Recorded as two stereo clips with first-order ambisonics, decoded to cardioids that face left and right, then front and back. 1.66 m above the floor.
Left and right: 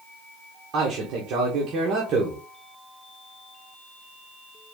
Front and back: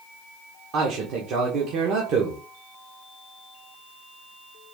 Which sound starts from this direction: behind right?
A man speaking, at 0.7 s.